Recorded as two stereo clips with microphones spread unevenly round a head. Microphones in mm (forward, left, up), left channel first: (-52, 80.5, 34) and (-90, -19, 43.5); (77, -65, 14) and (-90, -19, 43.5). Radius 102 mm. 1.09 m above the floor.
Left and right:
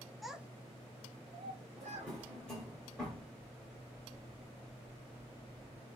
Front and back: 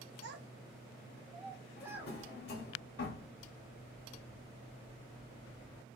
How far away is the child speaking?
About 0.6 m.